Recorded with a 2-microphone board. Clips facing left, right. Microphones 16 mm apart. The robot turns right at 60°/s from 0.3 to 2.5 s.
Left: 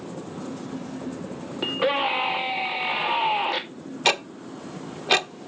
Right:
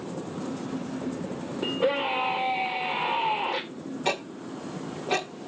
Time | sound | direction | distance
1.6 | a scream | 70° left | 2.5 m
4.0 | ticking | 55° left (ahead or behind) | 0.8 m